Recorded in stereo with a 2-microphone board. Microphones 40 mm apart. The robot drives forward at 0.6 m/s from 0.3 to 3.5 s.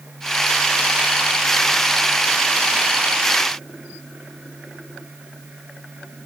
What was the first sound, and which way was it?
Only background noise.